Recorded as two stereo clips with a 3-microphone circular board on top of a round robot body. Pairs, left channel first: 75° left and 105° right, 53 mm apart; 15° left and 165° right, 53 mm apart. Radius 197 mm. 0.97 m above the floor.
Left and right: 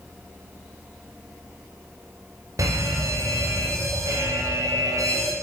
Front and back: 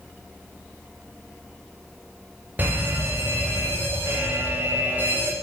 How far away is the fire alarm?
About 9 m.